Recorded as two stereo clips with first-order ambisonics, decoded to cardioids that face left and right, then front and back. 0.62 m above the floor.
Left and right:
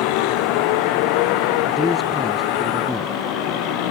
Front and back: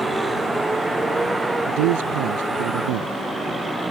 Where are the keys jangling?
I don't hear keys jangling.